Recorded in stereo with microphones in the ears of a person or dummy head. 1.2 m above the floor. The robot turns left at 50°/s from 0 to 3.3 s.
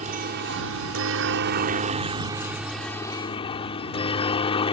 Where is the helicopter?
40° right (ahead or behind); by 4.7 s 35° left (ahead or behind).